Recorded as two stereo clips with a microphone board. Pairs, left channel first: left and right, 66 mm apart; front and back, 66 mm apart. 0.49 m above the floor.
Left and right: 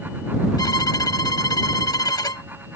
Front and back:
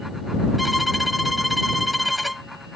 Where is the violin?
90° left.